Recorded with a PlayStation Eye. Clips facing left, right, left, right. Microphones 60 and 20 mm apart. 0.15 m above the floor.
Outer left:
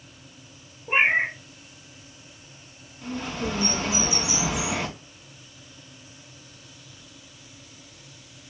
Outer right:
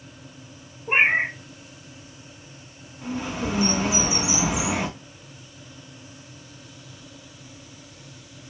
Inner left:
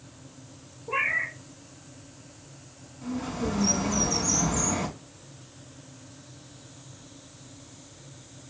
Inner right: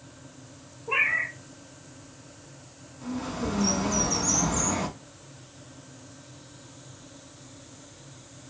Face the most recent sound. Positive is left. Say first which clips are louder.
# outer right 2 dB, inner left 1 dB
turn(degrees=-15)  # may be behind; listen again after turning